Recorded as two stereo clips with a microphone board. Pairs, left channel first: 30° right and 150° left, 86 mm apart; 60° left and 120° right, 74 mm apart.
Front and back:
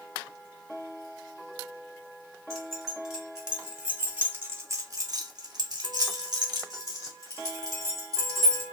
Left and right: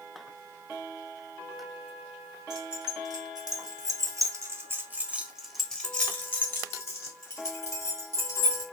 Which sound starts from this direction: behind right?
Keys jangling, at 2.5 s.